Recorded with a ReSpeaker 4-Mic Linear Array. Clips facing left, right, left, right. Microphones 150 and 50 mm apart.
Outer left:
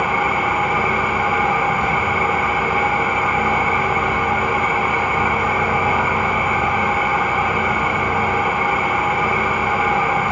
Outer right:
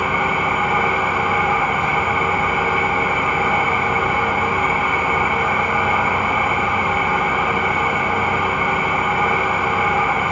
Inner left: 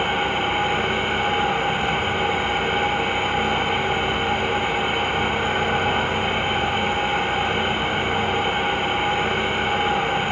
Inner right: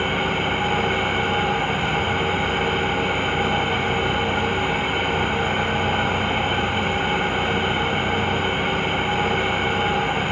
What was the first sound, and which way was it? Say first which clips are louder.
An engine running: outer left 1 dB, even; 40° left (ahead or behind).